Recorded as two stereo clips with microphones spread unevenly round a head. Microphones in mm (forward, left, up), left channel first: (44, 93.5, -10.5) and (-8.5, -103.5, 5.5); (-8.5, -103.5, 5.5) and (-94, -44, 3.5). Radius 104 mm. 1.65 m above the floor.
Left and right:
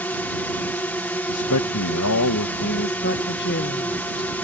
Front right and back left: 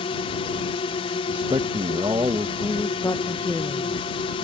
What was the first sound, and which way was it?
A drone, 5° right.